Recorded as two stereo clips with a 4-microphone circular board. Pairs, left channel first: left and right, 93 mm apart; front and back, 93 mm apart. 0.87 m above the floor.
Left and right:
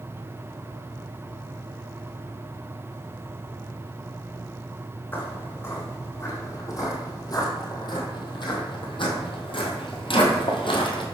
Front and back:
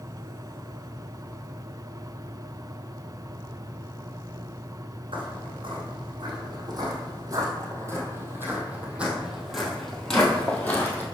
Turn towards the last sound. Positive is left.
turn(degrees=70)